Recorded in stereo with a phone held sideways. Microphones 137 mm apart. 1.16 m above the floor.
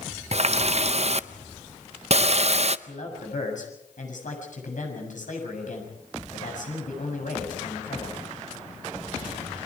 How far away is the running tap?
About 0.5 m.